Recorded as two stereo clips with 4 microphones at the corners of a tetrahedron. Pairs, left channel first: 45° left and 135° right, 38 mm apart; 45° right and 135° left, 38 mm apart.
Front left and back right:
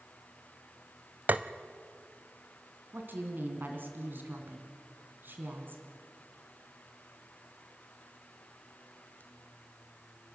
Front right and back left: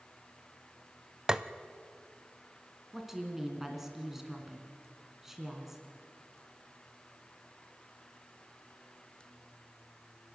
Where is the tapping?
160° right, 0.6 m.